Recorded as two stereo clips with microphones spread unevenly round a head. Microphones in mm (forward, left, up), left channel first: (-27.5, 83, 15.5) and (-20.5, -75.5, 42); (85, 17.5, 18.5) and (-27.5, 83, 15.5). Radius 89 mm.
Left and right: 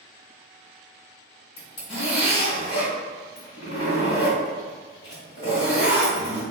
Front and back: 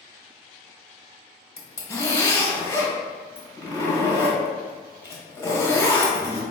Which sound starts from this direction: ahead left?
A zipper, at 1.6 s.